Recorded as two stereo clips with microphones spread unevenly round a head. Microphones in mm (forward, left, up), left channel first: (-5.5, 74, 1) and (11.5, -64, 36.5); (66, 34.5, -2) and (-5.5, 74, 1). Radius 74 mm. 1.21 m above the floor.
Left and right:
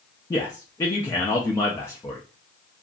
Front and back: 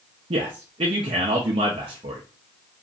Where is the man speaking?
160° left, 0.5 m.